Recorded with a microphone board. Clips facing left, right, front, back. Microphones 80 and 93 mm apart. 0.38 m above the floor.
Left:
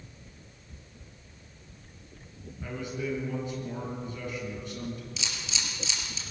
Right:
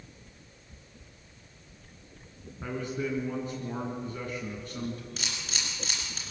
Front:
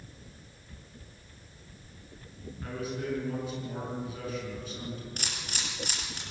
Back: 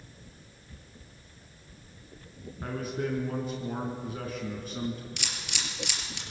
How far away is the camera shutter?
About 5 m.